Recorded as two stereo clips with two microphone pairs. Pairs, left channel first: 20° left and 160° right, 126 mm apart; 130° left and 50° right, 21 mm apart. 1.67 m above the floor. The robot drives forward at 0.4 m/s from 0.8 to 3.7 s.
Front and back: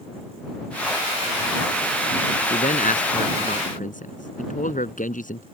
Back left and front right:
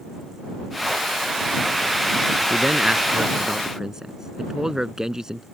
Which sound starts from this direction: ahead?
A man speaking, at 2.5 s.